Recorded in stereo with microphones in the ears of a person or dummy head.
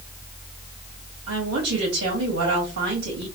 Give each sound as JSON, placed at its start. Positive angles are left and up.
{"t": 1.3, "sound": "a woman speaking", "side_deg": -85, "distance_m": 2.0}